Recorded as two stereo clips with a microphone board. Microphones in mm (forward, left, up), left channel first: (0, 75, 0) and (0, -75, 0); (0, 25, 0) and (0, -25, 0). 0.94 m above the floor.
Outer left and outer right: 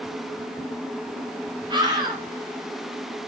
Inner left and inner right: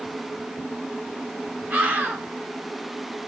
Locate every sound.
1.7 s a scream: 30° right (ahead or behind), 6 m